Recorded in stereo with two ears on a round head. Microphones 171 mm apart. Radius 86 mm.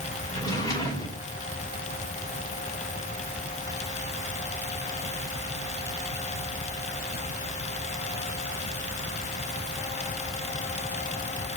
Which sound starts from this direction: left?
A drawer, at 0.3 s.